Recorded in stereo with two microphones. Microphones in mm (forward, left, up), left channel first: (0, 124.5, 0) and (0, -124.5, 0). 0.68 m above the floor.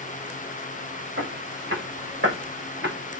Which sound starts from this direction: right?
Footsteps, at 1.2 s.